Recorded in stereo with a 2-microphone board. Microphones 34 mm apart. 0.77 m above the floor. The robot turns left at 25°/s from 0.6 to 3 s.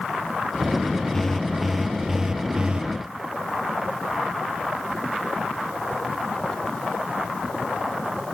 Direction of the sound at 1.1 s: 10° left.